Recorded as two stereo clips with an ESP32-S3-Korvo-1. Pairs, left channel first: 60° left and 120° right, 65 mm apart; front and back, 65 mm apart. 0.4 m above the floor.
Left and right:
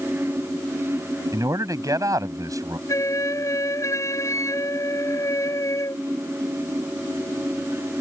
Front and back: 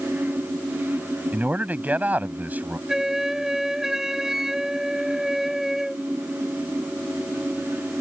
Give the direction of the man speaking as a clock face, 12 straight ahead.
4 o'clock.